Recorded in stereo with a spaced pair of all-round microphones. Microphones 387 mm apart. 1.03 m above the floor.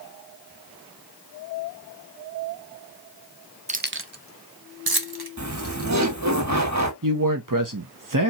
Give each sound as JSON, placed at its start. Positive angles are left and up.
{"t": 3.7, "sound": "keys jangling", "side_deg": -20, "distance_m": 0.6}
{"t": 5.4, "sound": "laughter", "side_deg": -45, "distance_m": 1.3}
{"t": 7.0, "sound": "a man speaking", "side_deg": -50, "distance_m": 0.9}